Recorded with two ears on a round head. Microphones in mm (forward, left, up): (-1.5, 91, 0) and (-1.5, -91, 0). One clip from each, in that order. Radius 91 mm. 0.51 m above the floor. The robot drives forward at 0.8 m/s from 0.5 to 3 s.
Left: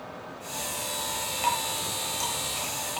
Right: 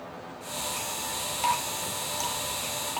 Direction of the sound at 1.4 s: Centre (ahead or behind).